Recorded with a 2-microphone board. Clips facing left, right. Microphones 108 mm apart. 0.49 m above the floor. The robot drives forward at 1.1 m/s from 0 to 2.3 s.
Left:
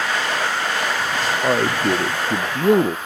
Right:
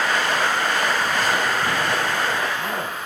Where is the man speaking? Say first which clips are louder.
Left 4 dB; 85° left.